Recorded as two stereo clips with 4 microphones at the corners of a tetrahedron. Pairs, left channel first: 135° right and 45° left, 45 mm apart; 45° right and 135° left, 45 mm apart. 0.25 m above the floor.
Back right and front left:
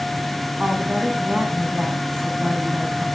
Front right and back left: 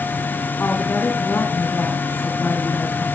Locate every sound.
0.6 s a woman speaking: 25° right, 2 m